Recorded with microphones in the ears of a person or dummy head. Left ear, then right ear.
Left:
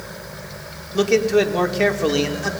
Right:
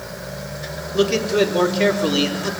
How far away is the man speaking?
About 5 m.